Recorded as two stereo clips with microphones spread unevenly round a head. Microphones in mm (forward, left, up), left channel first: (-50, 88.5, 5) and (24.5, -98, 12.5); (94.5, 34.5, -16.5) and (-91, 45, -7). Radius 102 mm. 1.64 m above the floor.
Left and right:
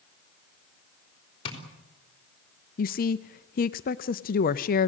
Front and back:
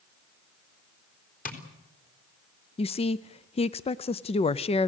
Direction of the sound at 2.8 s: 60° left.